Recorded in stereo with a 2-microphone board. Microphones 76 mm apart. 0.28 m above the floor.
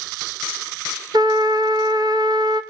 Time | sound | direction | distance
1.1 | a trumpet | 65° right (ahead or behind) | 0.8 m